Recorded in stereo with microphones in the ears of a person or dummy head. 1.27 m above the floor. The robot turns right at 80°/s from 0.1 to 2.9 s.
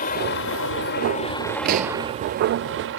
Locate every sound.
0.0 s a helicopter: 50° left; by 3.0 s 85° right
1.6 s a pop: 55° right (ahead or behind); by 2.0 s 25° right (ahead or behind)